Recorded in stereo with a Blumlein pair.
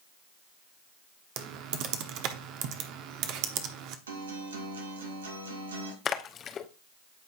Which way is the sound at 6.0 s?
25° left.